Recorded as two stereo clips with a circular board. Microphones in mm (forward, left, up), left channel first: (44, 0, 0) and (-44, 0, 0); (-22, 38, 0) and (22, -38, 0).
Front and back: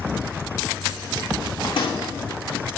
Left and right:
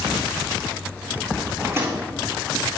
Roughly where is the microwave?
Ahead.